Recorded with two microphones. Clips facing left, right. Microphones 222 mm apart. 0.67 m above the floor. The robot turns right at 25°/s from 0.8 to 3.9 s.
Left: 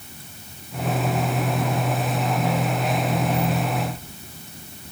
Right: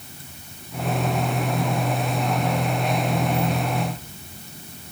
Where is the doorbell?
I don't hear a doorbell.